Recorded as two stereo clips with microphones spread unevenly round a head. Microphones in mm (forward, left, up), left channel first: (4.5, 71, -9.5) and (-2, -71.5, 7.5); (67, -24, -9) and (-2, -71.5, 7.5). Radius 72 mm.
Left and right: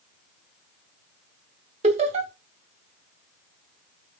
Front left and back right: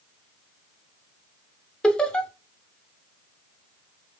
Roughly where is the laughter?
Ahead right.